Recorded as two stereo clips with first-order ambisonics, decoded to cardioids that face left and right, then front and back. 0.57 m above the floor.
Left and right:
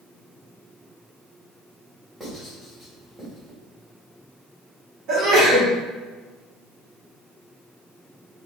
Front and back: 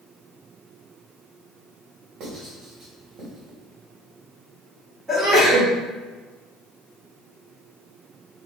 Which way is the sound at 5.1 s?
105° right.